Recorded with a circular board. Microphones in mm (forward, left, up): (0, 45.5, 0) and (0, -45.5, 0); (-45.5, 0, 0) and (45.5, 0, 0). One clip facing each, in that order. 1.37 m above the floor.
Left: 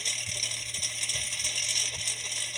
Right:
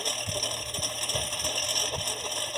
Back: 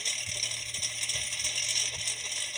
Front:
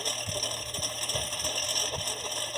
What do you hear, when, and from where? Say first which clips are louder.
0.0 s a lawn mower: right 8 dB, front 7 dB; 45° right